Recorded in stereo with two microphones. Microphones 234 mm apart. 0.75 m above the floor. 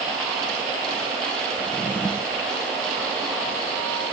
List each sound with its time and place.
1.6 s a drawer: 5° left (ahead or behind)